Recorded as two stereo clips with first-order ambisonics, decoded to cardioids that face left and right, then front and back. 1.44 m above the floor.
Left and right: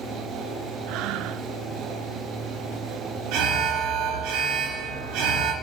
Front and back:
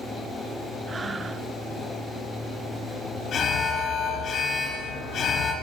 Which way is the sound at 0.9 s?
105° right.